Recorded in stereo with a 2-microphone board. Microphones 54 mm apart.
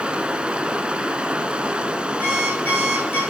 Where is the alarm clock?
40° left (ahead or behind), 9.5 m.